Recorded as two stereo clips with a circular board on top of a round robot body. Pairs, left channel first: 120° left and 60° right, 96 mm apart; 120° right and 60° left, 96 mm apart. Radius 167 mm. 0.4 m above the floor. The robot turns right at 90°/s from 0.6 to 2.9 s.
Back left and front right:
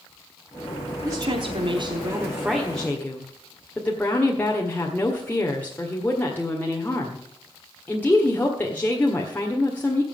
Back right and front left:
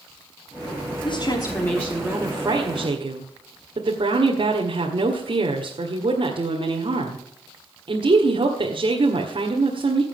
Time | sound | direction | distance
1.1 | a woman speaking | 115° right | 1.9 m